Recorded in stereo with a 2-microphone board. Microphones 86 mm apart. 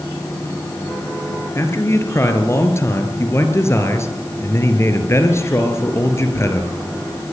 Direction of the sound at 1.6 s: 30° left (ahead or behind).